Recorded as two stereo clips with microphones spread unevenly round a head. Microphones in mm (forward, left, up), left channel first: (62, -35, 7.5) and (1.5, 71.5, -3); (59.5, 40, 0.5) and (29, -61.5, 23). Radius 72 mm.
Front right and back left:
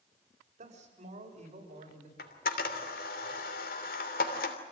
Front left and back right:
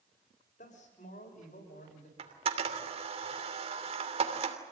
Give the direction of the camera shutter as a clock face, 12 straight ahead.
3 o'clock.